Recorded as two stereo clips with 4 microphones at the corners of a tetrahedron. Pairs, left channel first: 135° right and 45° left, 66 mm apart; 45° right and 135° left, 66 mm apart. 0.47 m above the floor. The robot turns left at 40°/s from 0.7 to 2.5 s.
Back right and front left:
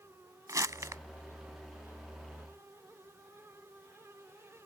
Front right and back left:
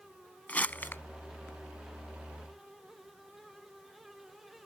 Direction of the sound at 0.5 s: 20° left.